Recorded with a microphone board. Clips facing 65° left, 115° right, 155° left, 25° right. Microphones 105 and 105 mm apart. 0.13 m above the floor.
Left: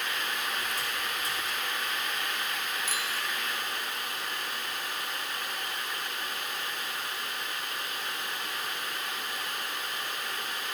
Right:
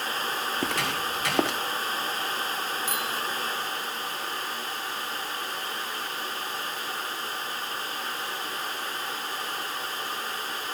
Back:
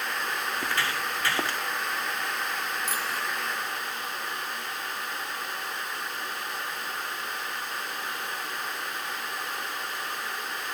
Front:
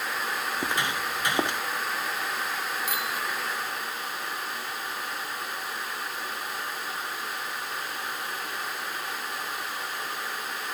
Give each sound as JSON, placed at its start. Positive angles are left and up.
{"t": 0.6, "sound": "footsteps", "azimuth_deg": -95}
{"t": 2.9, "sound": "a bicycle bell", "azimuth_deg": -150}